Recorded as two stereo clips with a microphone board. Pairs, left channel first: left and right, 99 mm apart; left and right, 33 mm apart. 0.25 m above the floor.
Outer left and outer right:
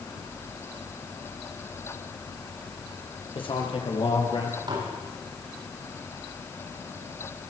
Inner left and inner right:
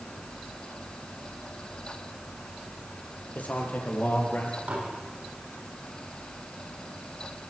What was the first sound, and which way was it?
A man speaking, 60° left (ahead or behind).